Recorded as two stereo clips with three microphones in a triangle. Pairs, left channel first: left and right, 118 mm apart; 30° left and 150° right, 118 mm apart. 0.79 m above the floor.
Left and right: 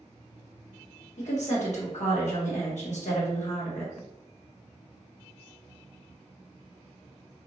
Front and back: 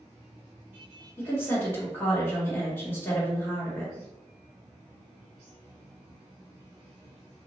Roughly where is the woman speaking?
Left.